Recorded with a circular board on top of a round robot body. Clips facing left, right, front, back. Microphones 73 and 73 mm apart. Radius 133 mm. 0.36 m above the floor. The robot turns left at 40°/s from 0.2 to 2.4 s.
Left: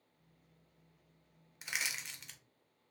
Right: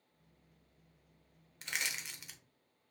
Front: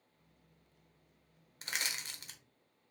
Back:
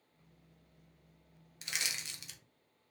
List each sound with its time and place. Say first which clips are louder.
1.6 s crushing: even, front 1 dB; 20° left, 0.8 m; by 2.4 s 10° right, 0.8 m